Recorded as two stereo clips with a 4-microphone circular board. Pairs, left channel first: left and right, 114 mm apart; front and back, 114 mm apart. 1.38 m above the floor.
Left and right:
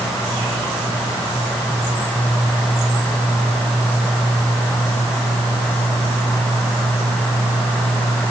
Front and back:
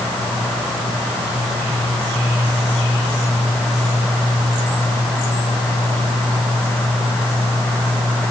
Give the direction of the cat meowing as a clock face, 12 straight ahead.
I don't hear a cat meowing.